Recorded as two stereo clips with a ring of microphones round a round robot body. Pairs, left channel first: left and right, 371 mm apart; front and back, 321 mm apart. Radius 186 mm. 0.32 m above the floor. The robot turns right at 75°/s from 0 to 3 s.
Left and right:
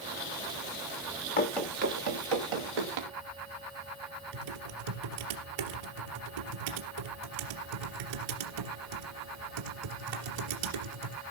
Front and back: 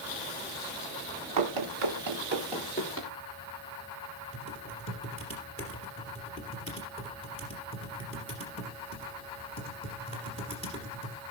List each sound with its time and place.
1.4 s running footsteps: 155° left, 2.5 m; by 3.1 s 55° right, 4.5 m
4.3 s typing on a keyboard: 75° right, 3.5 m